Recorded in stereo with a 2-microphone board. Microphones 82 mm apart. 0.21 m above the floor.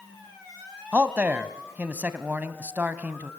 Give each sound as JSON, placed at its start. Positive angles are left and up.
{"t": 0.9, "sound": "a man speaking", "side_deg": -20, "distance_m": 1.1}